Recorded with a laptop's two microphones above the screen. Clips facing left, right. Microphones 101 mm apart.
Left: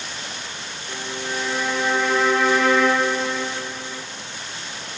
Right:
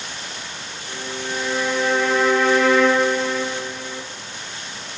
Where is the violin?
5° left (ahead or behind), 1.3 m.